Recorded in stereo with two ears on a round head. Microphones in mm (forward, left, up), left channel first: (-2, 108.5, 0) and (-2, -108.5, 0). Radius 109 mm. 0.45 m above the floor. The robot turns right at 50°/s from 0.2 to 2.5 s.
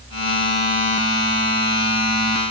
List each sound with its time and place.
Only background noise.